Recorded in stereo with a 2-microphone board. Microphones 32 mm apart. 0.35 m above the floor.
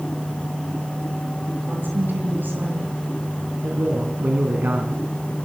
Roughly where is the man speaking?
Right.